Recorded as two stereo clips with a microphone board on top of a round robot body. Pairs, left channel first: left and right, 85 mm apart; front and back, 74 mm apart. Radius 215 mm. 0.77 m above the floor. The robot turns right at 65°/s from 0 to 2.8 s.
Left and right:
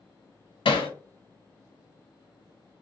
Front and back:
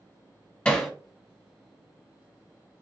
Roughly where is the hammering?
Left.